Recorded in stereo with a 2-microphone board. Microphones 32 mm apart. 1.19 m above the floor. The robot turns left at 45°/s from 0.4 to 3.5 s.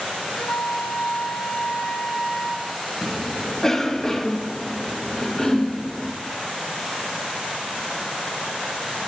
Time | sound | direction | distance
0.4 | a flute | 115° left | 1.2 m
3.0 | a cough | 35° left (ahead or behind) | 1.4 m